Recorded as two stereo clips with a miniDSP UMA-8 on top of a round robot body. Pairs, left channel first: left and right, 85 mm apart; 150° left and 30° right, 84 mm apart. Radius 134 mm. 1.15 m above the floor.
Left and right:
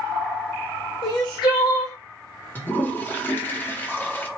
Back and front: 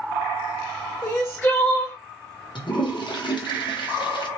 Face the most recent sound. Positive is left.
turn(degrees=155)